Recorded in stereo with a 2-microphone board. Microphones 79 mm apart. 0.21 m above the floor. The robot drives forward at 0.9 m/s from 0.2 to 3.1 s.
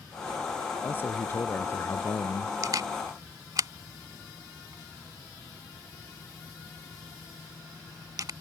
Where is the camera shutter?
50° right (ahead or behind).